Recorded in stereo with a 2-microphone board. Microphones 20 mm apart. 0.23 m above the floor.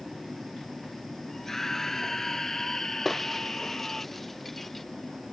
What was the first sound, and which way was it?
A scream, 20° left (ahead or behind).